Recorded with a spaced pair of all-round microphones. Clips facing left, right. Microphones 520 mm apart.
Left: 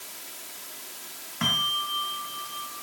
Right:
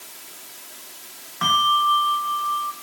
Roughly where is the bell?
Left.